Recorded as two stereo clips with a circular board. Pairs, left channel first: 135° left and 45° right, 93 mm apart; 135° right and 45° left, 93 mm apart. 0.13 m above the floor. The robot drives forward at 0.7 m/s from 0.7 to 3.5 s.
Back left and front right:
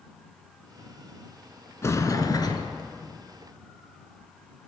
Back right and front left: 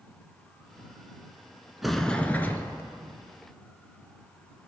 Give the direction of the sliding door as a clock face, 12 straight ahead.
8 o'clock.